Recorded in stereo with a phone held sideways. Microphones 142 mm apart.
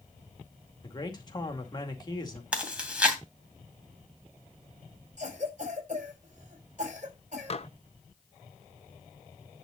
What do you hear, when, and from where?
0.8 s a man speaking: 30° left (ahead or behind), 2 m
2.5 s chewing: 5° right (ahead or behind), 2.5 m
5.2 s a cough: 55° right (ahead or behind), 5 m
7.5 s dishes clattering: 45° left (ahead or behind), 0.7 m